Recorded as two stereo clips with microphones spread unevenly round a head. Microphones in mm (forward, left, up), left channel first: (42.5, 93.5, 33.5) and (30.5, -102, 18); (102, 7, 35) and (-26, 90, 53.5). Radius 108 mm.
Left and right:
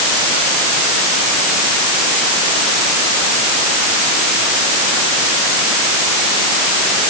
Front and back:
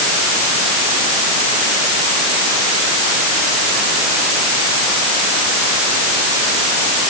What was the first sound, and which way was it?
Only background noise.